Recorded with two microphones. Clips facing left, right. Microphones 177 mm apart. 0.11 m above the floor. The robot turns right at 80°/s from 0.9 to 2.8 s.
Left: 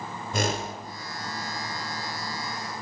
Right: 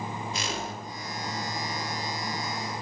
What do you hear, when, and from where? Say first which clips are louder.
0.3 s a whoosh: left 5 dB; 50° left (ahead or behind), 1.0 m